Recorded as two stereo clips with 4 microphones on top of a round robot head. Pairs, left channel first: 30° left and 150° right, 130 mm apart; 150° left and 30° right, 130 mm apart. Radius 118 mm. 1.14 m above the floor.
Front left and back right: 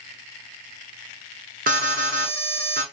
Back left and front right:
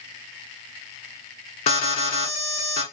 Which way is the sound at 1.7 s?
165° right.